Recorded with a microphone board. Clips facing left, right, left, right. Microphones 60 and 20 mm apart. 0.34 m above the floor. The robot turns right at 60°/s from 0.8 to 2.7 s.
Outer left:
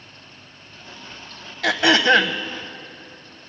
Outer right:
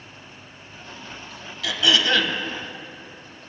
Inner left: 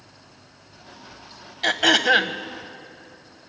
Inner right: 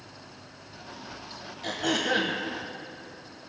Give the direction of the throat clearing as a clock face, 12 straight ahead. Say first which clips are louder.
Outer left 5 dB, inner left 10 dB; 9 o'clock.